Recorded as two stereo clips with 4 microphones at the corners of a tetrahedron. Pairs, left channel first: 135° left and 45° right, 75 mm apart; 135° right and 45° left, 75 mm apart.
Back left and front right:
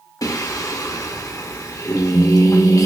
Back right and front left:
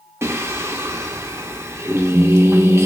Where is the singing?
100° left, 0.5 m.